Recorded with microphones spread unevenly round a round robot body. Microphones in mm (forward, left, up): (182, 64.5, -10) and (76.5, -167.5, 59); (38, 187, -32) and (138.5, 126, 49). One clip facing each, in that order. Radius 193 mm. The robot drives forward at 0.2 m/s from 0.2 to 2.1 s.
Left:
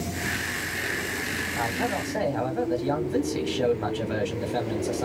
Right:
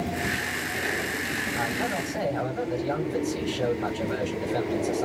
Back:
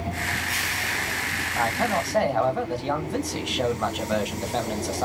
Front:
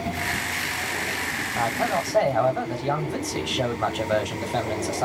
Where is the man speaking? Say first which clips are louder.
Left 2 dB, even; 85° left, 1.4 m; by 5.0 s 90° left, 1.4 m.